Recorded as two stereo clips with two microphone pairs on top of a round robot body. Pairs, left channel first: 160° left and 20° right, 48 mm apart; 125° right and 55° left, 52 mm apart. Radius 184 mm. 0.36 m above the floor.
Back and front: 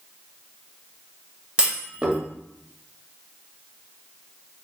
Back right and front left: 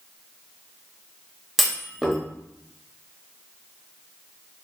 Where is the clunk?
35° right, 1.2 m.